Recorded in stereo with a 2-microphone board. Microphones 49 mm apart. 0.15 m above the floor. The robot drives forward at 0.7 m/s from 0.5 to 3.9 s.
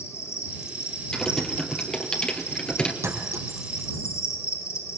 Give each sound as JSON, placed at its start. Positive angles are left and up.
{"t": 0.0, "sound": "an insect", "side_deg": 75, "distance_m": 10.0}
{"t": 1.1, "sound": "typing on a keyboard", "side_deg": 15, "distance_m": 3.5}
{"t": 3.0, "sound": "a clink", "side_deg": -75, "distance_m": 5.0}